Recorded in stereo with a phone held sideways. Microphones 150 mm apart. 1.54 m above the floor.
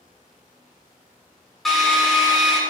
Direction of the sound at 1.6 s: Centre (ahead or behind).